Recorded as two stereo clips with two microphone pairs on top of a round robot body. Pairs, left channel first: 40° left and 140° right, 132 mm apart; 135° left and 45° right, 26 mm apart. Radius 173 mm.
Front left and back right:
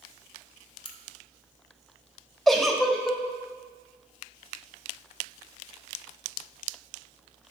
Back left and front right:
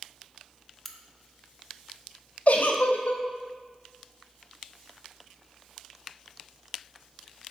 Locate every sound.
0.8 s a crack: 60° left, 0.9 m
2.5 s a giggle: 130° left, 0.7 m